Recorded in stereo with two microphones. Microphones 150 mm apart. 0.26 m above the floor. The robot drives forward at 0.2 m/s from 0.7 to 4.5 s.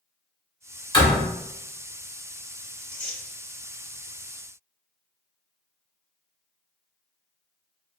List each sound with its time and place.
0.9 s a door slam: 30° left (ahead or behind), 1.1 m
2.8 s tearing paper: 10° left (ahead or behind), 1.4 m